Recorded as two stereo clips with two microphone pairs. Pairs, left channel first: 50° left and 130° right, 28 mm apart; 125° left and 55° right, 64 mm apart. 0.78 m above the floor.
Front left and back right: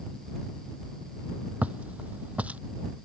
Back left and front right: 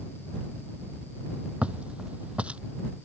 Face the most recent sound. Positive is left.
turn(degrees=-120)